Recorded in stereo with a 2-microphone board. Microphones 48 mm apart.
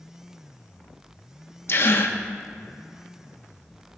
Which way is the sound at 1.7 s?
55° left (ahead or behind).